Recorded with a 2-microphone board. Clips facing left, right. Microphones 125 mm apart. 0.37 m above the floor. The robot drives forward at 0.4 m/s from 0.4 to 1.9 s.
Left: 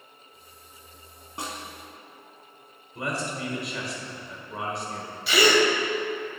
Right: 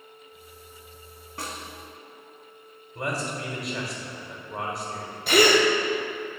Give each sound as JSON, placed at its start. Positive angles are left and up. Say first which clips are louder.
{"t": 1.4, "sound": "a snare drum", "louder": "left 1 dB", "side_deg": 20, "distance_m": 0.8}
{"t": 3.0, "sound": "a man speaking", "louder": "right 1 dB", "side_deg": 0, "distance_m": 1.3}
{"t": 5.3, "sound": "a gasp", "louder": "right 2 dB", "side_deg": -45, "distance_m": 0.6}